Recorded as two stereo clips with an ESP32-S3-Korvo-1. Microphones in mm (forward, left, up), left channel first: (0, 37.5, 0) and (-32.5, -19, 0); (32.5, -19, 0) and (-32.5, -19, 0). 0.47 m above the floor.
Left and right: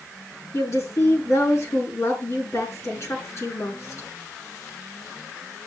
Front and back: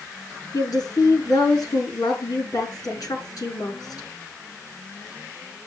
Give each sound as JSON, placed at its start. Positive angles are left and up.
{"t": 0.5, "sound": "a woman speaking", "azimuth_deg": 15, "distance_m": 5.5}